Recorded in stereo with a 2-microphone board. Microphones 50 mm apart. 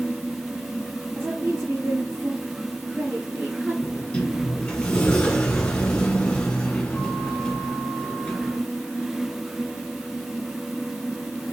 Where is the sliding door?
20° left (ahead or behind), 3 m.